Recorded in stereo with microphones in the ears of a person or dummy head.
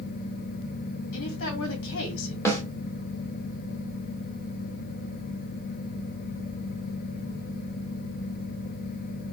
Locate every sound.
1.1 s a woman speaking: 60° left (ahead or behind), 2 m
2.5 s a snare drum: 5° left (ahead or behind), 1.9 m